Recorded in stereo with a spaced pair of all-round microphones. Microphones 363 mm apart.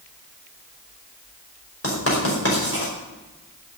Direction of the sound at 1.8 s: 40° left (ahead or behind).